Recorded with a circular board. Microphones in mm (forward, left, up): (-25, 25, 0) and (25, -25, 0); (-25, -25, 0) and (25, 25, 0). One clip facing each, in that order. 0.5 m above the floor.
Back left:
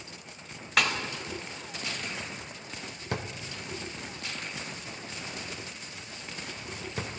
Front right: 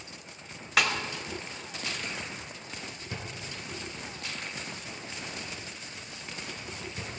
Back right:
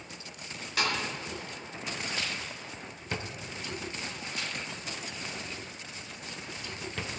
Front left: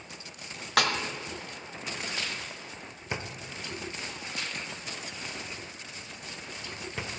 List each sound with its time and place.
0.8 s a snare drum: 45° left, 1.1 m
3.1 s a drawer: 120° left, 0.9 m